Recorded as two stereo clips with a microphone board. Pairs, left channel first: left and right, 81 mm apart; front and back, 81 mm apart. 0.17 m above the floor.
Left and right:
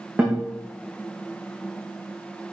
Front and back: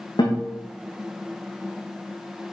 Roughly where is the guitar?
Ahead.